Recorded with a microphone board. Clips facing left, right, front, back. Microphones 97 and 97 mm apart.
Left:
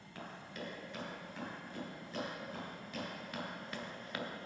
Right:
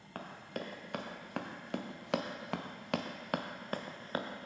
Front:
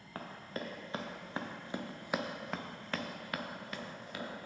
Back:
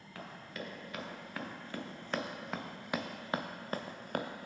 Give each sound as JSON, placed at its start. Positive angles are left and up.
{"t": 0.1, "sound": "running footsteps", "azimuth_deg": -50, "distance_m": 1.8}